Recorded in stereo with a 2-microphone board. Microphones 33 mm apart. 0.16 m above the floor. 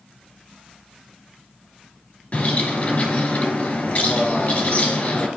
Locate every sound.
2.3 s a bird: 40° left (ahead or behind), 1.6 m